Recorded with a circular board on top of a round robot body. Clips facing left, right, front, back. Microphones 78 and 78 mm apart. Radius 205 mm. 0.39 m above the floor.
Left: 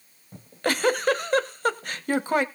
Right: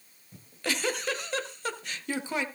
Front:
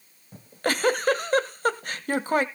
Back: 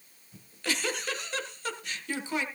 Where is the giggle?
45° left, 1.3 m.